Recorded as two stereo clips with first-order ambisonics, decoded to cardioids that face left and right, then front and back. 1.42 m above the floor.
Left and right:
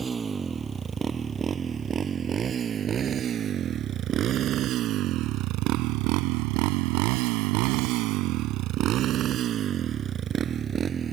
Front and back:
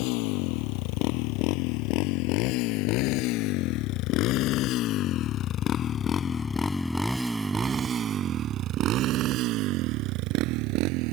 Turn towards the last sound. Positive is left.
turn(degrees=-155)